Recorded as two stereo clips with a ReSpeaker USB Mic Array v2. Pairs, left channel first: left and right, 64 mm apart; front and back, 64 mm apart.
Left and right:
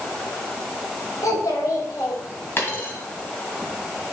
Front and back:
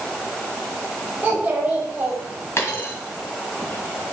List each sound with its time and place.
1.2 s a child speaking: 125° left, 4 m
2.6 s a dropped coin: 40° left, 2 m